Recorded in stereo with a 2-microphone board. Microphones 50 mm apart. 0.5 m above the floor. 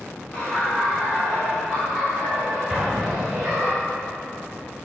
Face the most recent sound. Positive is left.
turn(degrees=-10)  # may be behind; listen again after turning